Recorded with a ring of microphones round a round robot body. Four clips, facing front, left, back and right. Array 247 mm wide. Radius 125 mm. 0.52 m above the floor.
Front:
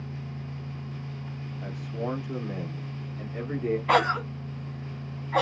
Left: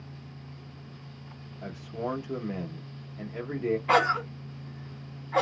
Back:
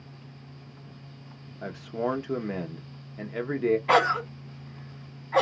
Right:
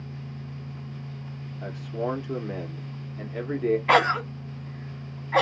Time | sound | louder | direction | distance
1.6 | a man speaking | right 4 dB, back 4 dB | 160° right | 1.0 m
3.9 | a cough | right 1 dB, front 3 dB | 95° right | 1.2 m